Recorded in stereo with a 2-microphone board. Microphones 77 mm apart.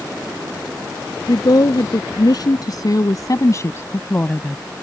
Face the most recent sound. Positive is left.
turn(degrees=10)  # may be behind; listen again after turning